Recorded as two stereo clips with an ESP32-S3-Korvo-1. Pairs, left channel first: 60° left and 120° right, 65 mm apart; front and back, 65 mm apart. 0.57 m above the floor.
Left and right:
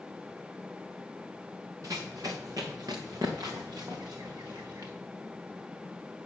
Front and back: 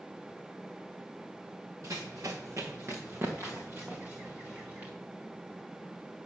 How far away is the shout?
No shout in this recording.